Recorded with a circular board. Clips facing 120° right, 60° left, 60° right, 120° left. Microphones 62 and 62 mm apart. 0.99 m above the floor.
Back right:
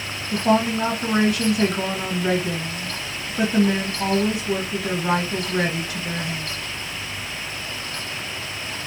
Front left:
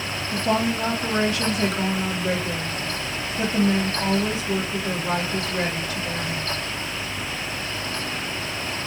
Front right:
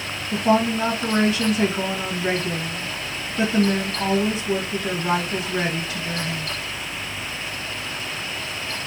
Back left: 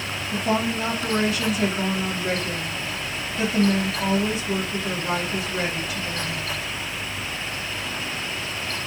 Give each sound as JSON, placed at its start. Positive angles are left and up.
{"t": 0.3, "sound": "a woman speaking", "azimuth_deg": -105, "distance_m": 1.5}